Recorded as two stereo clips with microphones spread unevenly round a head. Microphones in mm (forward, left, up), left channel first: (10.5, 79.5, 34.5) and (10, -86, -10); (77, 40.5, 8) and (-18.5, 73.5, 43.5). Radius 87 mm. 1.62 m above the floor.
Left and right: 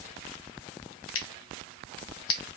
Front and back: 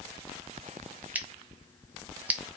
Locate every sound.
1.1 s scissors: 85° left, 0.6 m